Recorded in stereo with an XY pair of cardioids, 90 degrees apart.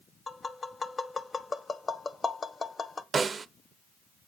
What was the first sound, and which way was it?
Tapping, 30° left.